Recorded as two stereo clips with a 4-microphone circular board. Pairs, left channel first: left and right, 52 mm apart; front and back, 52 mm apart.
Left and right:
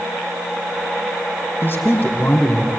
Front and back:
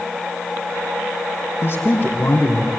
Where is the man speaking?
40° left, 4.5 m; by 2.7 s 35° left, 3.5 m.